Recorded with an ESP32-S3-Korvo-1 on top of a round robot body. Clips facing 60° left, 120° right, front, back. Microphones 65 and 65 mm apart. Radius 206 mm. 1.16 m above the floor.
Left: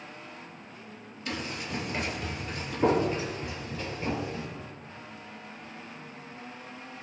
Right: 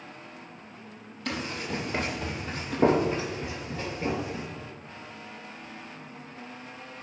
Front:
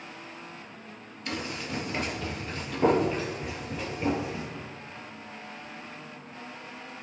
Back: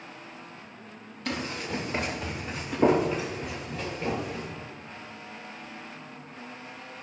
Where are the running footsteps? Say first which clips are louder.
Right 3 dB, back 2 dB; 145° right, 2.5 m; by 4.5 s 75° right, 4 m.